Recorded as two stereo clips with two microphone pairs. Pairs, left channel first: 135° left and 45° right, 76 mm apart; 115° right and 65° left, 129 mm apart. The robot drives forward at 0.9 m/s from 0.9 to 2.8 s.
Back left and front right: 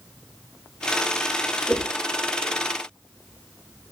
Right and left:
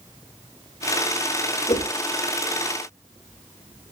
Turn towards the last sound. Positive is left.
turn(degrees=-160)